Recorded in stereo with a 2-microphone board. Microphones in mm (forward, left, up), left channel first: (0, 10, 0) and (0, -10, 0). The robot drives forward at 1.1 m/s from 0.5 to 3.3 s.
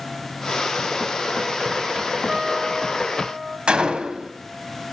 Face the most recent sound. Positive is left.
turn(degrees=-70)  # may be behind; listen again after turning